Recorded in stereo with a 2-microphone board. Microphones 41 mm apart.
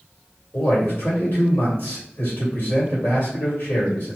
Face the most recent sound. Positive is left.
turn(degrees=50)  # may be behind; listen again after turning